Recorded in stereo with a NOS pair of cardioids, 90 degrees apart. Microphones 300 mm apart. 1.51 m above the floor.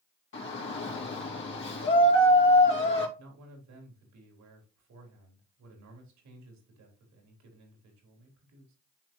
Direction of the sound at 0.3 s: 40° left.